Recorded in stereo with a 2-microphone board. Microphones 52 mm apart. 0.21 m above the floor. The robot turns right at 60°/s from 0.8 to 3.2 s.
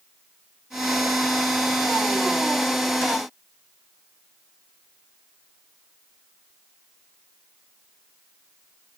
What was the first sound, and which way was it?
Only background noise.